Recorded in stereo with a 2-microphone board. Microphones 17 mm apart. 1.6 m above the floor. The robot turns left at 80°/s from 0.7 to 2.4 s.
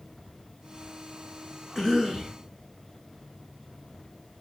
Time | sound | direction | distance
1.8 | a cough | straight ahead | 3 m